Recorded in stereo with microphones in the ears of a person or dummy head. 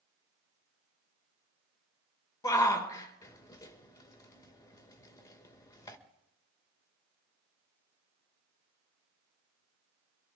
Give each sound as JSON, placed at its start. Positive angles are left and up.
{"t": 2.4, "sound": "a shout", "side_deg": 20, "distance_m": 1.6}